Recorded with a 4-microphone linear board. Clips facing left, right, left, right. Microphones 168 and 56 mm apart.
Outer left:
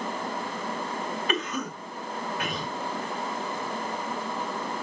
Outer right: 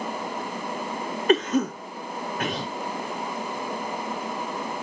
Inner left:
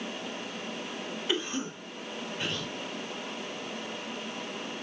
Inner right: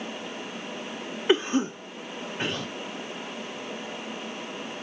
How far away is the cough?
About 0.7 m.